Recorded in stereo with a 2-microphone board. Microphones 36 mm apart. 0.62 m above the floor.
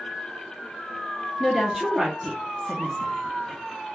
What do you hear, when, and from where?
1.4 s a woman speaking: 10° right (ahead or behind), 0.6 m